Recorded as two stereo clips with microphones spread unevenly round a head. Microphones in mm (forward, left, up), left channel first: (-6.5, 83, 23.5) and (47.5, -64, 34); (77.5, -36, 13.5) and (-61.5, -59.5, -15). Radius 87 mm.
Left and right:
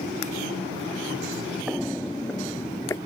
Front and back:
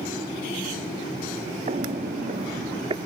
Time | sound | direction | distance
1.7 | footsteps | 150° right | ?